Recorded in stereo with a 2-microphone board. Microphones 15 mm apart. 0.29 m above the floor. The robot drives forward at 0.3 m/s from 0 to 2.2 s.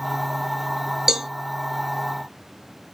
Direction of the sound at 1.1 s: 35° right (ahead or behind).